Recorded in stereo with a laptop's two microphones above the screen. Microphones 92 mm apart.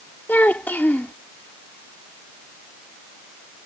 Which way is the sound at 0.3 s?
20° left (ahead or behind).